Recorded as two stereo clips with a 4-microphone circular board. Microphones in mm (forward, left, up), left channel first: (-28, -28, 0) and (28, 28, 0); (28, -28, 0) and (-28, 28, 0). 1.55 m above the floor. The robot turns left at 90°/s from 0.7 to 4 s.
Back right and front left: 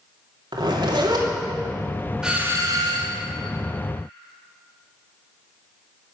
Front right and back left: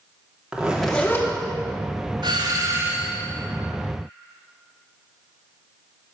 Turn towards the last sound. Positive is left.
turn(degrees=-35)